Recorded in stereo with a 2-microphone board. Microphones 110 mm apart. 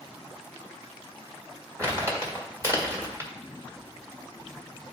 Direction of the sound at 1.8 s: 30° right (ahead or behind).